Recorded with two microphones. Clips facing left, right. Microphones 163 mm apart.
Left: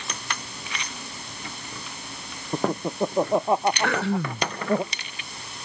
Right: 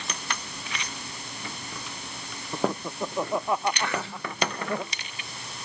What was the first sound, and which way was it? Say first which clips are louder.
Laughter: left 3 dB; 30° left (ahead or behind).